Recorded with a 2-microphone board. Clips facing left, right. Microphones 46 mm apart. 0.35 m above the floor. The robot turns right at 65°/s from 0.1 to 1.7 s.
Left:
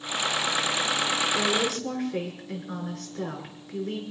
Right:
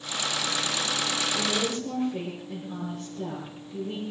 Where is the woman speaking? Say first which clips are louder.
Left 2 dB; 55° left (ahead or behind), 6 m; by 4.0 s 75° left (ahead or behind), 6 m.